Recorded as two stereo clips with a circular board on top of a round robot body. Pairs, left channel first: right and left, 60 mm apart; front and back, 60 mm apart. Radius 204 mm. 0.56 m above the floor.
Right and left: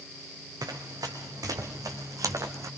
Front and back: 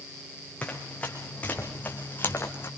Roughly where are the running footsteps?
Left.